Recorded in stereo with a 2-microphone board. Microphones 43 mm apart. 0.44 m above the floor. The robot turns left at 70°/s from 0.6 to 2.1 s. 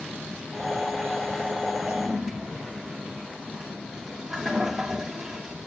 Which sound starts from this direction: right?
A toilet flushing, at 1.9 s.